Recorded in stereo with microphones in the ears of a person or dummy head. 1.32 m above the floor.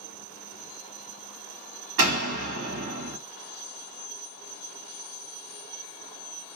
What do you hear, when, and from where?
2.0 s a door slam: 55° right (ahead or behind), 1.7 m